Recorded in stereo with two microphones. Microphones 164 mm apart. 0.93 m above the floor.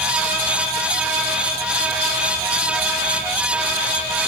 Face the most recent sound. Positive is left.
No sound to turn to.